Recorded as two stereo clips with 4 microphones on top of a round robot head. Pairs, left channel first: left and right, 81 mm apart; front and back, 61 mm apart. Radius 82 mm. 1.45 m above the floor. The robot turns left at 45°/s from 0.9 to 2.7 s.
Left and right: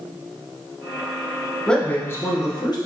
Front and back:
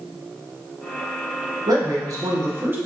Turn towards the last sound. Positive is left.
turn(degrees=125)